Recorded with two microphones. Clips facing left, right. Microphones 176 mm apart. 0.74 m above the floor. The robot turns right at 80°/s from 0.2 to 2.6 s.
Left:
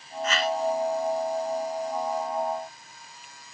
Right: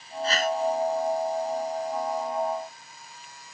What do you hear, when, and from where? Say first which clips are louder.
0.2 s a whoosh: right 1 dB; 30° right (ahead or behind); by 0.6 s 60° right (ahead or behind)